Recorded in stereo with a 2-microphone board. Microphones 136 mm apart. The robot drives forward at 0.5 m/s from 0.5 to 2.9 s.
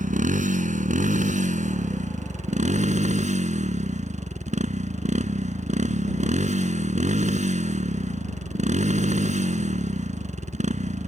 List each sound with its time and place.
0.0 s a motorcycle: 70° right (ahead or behind); by 11.1 s 60° right (ahead or behind)